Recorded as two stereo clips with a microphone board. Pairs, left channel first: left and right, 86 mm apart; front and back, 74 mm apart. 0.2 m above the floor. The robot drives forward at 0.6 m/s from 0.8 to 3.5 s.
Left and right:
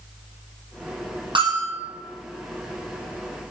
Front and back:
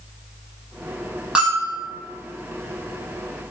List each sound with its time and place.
1.4 s a bell: 95° right, 4 m; by 1.8 s 100° right, 4 m